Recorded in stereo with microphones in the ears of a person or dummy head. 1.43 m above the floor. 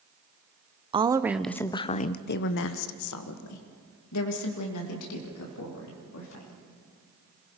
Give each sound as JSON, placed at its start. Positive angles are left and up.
{"t": 0.9, "sound": "a woman speaking", "side_deg": -25, "distance_m": 0.7}